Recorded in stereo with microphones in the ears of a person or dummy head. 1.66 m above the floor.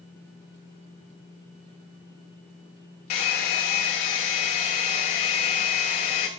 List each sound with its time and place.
3.1 s a hair dryer: 45° left (ahead or behind), 0.7 m